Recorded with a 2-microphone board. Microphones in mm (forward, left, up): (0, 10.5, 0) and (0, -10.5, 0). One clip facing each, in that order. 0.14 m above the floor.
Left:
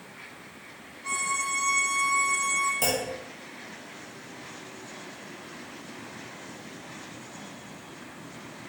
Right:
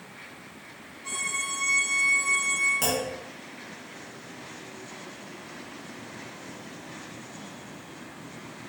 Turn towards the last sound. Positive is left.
turn(degrees=-15)  # may be behind; listen again after turning